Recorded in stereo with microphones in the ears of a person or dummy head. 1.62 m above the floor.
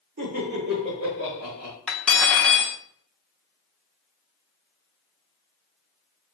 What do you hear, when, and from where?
0.2 s laughter: 45° right (ahead or behind), 1.9 m
1.9 s cutlery clinking: 5° left (ahead or behind), 0.7 m